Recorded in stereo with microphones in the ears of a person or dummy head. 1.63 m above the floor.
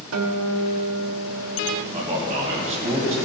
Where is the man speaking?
30° right (ahead or behind), 2 m.